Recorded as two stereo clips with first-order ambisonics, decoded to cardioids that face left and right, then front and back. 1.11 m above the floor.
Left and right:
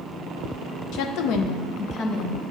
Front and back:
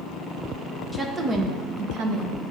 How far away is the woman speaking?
About 0.6 m.